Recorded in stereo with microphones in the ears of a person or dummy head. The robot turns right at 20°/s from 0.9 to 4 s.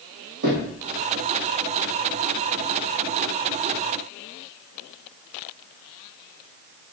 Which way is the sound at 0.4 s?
60° right (ahead or behind).